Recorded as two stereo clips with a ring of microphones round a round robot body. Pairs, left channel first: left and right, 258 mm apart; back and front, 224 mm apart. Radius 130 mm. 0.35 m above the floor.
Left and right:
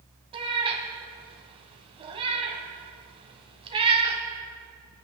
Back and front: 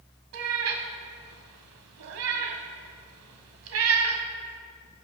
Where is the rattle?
I don't hear a rattle.